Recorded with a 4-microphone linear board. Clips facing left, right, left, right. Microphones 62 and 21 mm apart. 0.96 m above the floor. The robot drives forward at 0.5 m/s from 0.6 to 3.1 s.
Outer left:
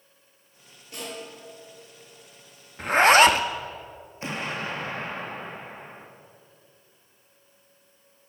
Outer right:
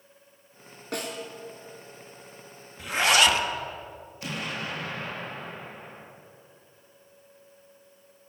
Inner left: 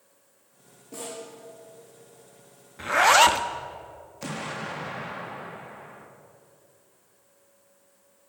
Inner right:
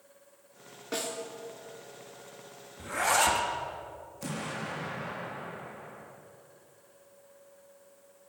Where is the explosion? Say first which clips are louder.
Outer left 3 dB, inner left 3 dB; 30° left (ahead or behind), 1.4 m.